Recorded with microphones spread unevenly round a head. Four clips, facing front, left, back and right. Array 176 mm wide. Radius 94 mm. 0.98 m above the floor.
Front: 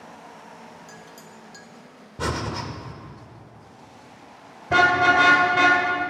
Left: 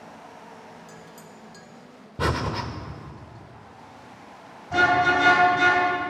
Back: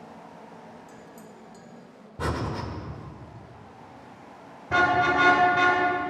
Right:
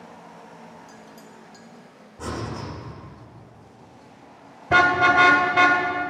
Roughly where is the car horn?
Right.